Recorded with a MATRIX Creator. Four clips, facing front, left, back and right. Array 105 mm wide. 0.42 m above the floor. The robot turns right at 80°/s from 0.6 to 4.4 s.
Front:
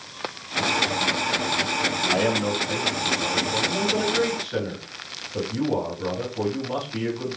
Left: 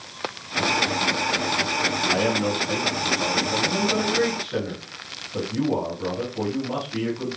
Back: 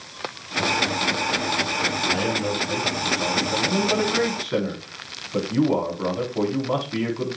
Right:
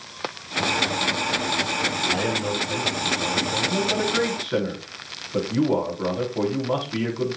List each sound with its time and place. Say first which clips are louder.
2.0 s a man speaking: left 4 dB, front 3 dB; 25° left, 4.5 m; by 7.4 s 150° right, 4.5 m